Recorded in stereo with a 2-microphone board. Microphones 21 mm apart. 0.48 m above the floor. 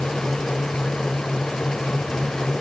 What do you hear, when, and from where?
Only background noise.